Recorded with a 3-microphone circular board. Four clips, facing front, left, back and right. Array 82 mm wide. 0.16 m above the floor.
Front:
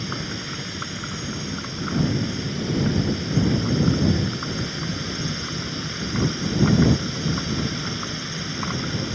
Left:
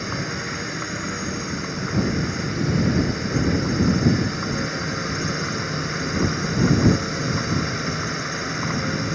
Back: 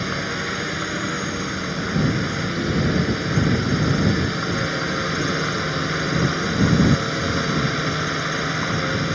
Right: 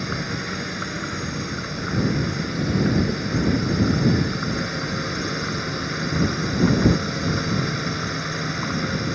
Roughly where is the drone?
Behind.